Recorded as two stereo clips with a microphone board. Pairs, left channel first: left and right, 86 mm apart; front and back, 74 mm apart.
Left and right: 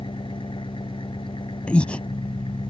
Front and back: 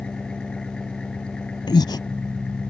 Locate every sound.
0.0 s an engine running: 80° left
1.7 s breathing: 15° left